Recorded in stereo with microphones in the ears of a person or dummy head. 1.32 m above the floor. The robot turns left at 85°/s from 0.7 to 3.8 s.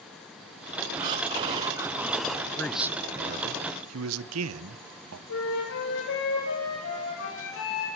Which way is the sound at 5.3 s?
65° left (ahead or behind).